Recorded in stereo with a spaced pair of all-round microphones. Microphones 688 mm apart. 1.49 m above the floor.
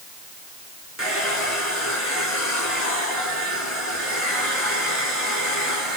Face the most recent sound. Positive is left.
turn(degrees=25)  # may be behind; listen again after turning